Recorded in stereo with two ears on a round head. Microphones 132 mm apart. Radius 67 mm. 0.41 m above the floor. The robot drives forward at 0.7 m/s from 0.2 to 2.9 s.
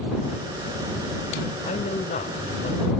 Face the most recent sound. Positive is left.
turn(degrees=45)  # may be behind; listen again after turning